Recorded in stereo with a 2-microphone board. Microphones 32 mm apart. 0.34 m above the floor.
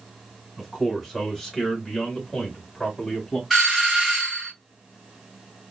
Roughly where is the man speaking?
Centre.